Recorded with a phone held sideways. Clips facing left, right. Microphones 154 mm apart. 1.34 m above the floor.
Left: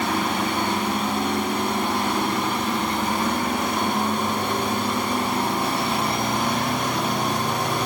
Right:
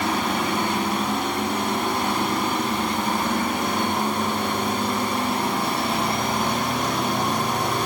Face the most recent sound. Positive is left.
No sound to turn to.